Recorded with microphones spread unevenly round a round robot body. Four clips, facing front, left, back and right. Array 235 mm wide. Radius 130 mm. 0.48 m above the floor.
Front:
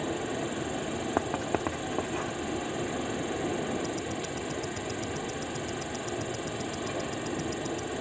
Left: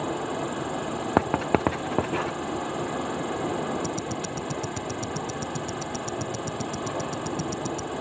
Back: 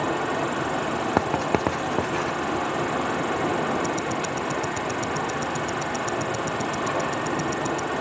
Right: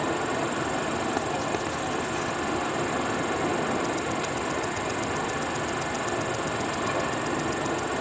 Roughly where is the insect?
Behind.